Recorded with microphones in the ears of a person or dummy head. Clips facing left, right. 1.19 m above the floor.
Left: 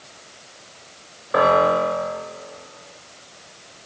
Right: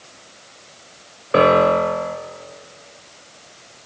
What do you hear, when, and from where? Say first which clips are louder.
1.3 s a piano: right 3 dB; 45° right (ahead or behind), 1.0 m